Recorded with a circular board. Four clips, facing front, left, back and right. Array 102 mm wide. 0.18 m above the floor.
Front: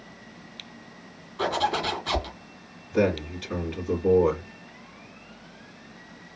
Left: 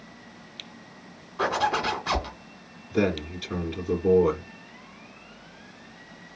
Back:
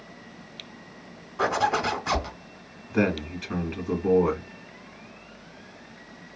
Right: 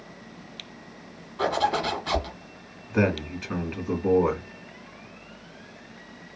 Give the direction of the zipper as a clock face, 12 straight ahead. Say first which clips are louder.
Right 1 dB, back 2 dB; 7 o'clock.